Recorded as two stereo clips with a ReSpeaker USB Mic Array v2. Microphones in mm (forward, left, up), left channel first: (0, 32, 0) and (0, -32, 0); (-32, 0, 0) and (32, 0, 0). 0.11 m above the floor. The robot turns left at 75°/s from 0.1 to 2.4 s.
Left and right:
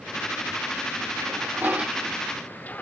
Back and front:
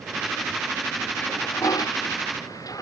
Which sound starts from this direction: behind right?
A toilet flushing, at 1.2 s.